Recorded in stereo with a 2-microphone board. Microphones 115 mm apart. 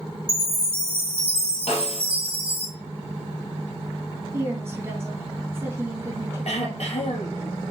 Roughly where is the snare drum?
Left.